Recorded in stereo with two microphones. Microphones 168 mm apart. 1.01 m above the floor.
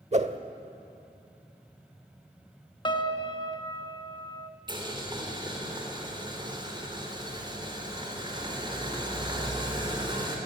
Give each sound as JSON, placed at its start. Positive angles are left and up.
{"t": 0.1, "sound": "a whoosh", "side_deg": -45, "distance_m": 0.9}
{"t": 2.9, "sound": "a piano", "side_deg": 30, "distance_m": 1.1}
{"t": 4.7, "sound": "boiling", "side_deg": -30, "distance_m": 3.5}